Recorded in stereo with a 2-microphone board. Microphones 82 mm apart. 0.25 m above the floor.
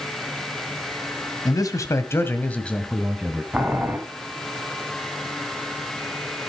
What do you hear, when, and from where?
1.4 s a man speaking: 45° left (ahead or behind), 1.7 m; by 3.4 s 10° right (ahead or behind), 1.8 m
3.5 s boiling: 15° right (ahead or behind), 2.5 m